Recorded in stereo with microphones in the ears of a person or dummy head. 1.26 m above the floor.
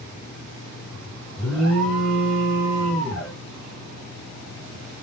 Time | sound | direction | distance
1.4 | an alarm | 5° left (ahead or behind) | 2 m